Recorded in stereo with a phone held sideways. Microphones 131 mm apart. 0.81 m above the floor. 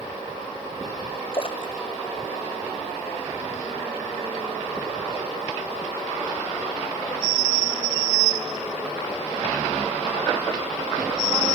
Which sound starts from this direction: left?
A splash, at 1.3 s.